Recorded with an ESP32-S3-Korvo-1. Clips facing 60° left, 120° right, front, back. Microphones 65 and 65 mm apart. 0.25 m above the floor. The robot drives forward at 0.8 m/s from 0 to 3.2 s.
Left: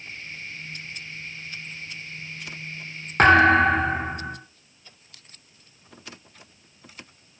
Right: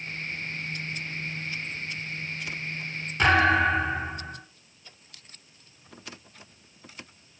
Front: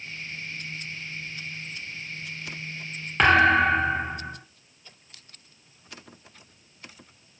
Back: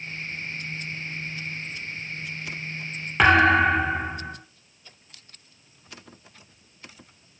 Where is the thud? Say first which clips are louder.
Left 5 dB, back 1 dB; 95° left, 6.5 m.